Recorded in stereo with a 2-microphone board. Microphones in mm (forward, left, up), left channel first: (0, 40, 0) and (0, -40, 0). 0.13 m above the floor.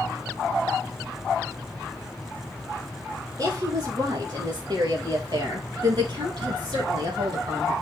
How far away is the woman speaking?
About 4 m.